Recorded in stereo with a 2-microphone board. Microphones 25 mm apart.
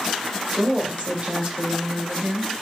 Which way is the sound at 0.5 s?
50° right (ahead or behind).